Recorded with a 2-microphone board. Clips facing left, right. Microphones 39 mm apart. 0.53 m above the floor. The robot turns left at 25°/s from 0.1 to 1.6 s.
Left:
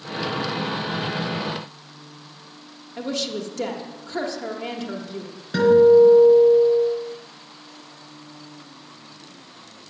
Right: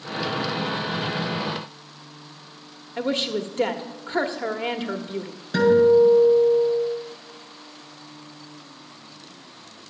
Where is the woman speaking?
30° right (ahead or behind), 1.1 m.